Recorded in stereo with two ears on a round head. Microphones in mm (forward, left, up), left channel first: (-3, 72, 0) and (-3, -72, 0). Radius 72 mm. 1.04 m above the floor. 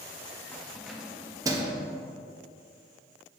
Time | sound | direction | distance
0.5 | keys jangling | 10° left (ahead or behind) | 0.9 m